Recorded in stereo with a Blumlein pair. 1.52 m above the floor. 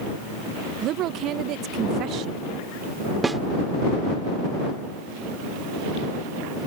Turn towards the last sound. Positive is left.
turn(degrees=-10)